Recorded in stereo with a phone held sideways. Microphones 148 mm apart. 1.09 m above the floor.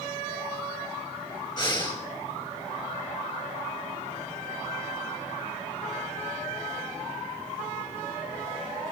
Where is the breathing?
30° left (ahead or behind), 6 m.